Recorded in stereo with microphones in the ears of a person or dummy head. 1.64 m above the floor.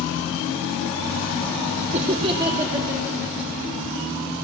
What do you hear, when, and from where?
1.9 s laughter: 35° right (ahead or behind), 0.5 m; by 3.7 s 15° right (ahead or behind), 1.4 m